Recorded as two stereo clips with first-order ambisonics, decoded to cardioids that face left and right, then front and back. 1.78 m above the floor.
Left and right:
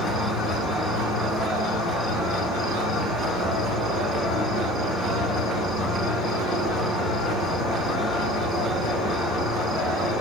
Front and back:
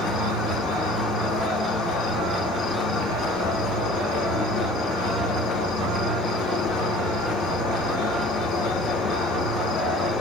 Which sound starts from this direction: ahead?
An insect, at 0.0 s.